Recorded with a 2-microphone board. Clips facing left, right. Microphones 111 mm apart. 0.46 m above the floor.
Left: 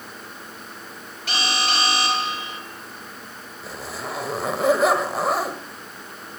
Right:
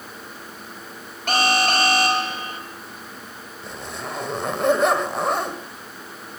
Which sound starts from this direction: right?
An alarm, at 1.3 s.